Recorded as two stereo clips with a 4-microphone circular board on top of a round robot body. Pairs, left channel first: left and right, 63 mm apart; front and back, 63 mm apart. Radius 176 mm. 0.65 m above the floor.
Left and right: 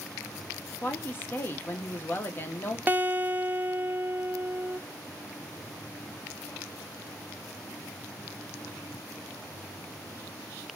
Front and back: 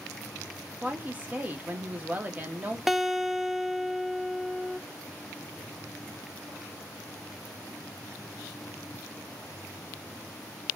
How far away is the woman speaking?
About 1.2 m.